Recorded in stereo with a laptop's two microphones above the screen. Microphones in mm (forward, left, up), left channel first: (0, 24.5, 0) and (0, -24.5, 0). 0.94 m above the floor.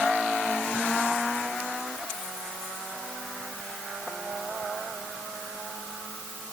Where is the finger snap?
No finger snap in this recording.